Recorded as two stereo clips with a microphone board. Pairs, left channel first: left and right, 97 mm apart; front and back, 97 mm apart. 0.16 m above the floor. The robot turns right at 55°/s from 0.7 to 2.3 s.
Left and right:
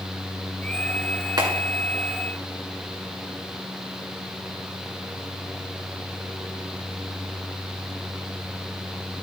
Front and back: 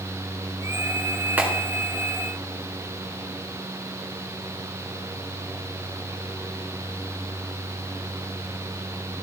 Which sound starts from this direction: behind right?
A clap, at 1.4 s.